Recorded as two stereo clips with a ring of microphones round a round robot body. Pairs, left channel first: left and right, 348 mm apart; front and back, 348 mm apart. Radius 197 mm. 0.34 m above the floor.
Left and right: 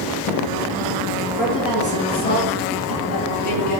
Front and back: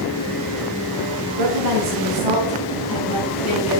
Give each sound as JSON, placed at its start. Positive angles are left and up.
{"t": 1.4, "sound": "a woman speaking", "azimuth_deg": 180, "distance_m": 3.5}